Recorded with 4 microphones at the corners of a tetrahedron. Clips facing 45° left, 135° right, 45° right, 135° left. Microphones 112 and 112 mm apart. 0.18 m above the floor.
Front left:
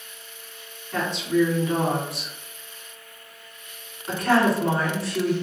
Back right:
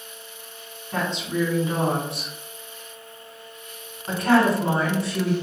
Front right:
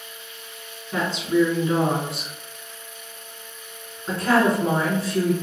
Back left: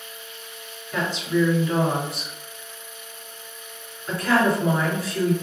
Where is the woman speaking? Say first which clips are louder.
Front left 3 dB, front right 2 dB; 85° right, 1.8 m.